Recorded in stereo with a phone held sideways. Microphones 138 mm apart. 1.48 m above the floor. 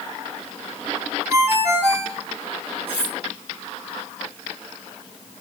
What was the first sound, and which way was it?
A ringtone, 20° right (ahead or behind).